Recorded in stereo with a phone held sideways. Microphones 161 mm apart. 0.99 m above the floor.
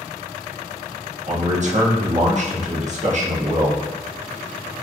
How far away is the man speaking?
About 0.6 m.